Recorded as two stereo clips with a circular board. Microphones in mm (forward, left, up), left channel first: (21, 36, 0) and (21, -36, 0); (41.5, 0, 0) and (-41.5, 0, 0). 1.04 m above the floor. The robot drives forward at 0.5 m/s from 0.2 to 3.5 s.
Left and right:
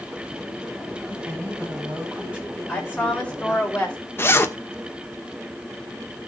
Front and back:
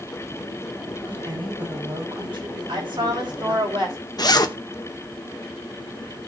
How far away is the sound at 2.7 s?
About 4.5 m.